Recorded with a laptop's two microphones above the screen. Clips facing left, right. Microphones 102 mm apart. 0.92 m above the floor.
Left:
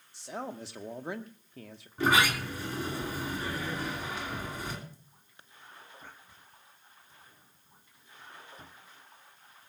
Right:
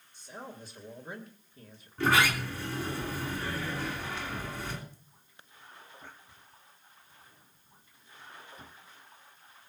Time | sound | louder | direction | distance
0.1 | a man speaking | left 6 dB | 80° left | 1.4 m
2.0 | a sliding door | even | 15° left (ahead or behind) | 3 m